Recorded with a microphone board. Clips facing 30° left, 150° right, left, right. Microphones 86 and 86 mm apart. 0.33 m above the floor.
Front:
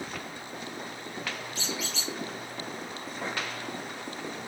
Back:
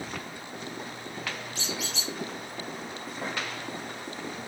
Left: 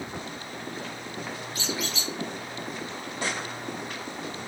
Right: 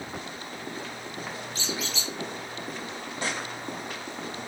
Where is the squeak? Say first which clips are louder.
Even, left 2 dB; 155° right, 1.5 m.